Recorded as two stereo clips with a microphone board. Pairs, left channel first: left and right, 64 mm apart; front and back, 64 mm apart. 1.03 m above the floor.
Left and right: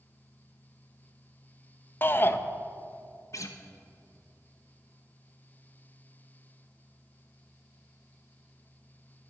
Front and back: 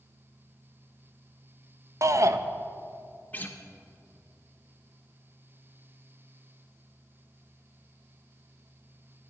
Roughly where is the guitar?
Ahead left.